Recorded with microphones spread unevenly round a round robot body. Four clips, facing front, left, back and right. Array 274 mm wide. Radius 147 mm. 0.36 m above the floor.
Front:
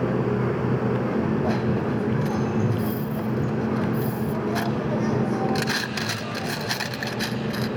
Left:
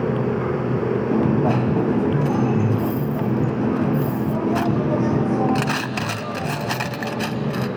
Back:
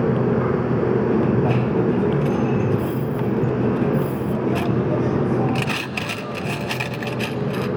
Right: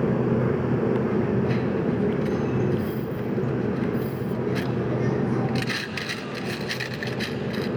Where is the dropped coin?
95° left, 1.1 m.